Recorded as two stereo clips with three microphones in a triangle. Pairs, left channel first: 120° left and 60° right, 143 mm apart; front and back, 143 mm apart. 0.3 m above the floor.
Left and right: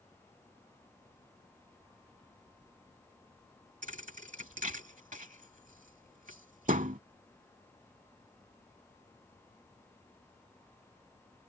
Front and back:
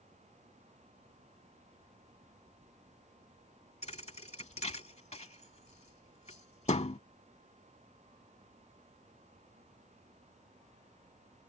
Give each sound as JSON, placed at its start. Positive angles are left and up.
{"t": 3.8, "sound": "a thud", "azimuth_deg": -40}